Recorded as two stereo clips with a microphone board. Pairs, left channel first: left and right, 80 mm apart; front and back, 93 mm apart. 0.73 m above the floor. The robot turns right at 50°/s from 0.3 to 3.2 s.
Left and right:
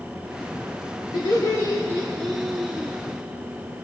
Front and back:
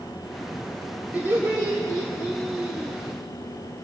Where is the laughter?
110° left, 1.8 m; by 3.0 s 155° right, 1.8 m.